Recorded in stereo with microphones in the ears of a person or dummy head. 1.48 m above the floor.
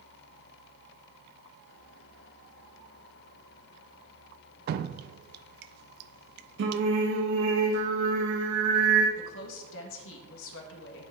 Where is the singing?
65° right (ahead or behind), 1.8 m.